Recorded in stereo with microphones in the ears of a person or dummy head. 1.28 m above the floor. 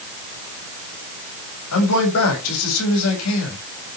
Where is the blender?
I don't hear a blender.